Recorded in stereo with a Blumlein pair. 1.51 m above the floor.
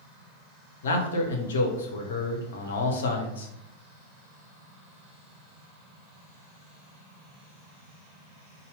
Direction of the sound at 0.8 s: 60° left.